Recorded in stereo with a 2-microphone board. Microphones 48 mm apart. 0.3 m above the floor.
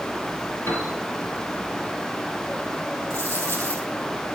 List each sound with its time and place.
0.7 s a piano: 65° left (ahead or behind), 6.5 m
3.1 s a dropped coin: 55° left (ahead or behind), 3.5 m